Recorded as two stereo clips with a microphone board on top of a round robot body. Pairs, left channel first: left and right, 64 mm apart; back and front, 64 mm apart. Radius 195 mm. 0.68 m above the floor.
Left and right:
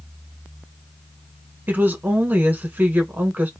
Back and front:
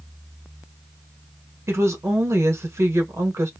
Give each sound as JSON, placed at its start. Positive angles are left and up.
{"t": 1.7, "sound": "a woman speaking", "azimuth_deg": -35, "distance_m": 1.5}